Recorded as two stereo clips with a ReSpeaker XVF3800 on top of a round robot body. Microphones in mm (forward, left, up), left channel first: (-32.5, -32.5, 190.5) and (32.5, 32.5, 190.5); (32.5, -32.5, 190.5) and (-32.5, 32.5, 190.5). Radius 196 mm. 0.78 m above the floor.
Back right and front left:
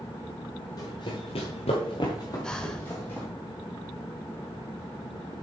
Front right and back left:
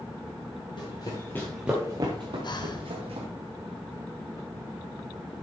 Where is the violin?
I don't hear a violin.